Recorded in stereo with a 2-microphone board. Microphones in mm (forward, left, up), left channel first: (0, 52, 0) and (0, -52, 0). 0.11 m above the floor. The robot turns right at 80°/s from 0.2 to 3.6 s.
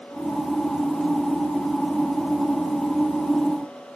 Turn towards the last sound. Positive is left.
No sound to turn to.